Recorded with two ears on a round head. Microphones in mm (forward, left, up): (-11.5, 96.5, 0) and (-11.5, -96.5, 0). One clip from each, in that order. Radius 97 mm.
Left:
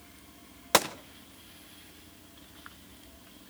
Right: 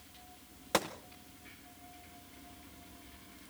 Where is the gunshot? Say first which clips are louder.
Left 8 dB; 30° left (ahead or behind), 0.6 m.